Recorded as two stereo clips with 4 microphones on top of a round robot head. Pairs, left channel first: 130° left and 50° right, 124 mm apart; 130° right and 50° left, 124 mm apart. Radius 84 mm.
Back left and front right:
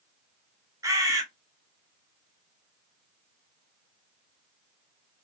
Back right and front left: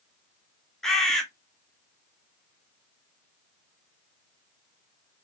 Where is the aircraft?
No aircraft in this recording.